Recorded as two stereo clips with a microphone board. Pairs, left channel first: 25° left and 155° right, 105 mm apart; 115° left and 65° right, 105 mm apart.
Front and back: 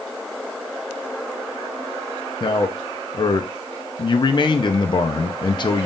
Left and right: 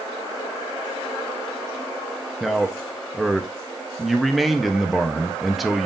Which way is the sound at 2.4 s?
20° left.